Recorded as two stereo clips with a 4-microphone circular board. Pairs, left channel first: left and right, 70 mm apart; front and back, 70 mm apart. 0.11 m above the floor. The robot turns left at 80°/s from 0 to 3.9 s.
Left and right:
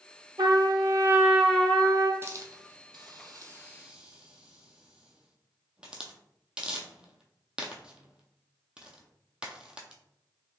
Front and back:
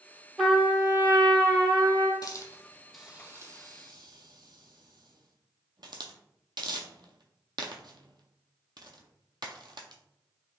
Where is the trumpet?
90° right, 0.6 m; by 2.1 s 130° left, 0.6 m.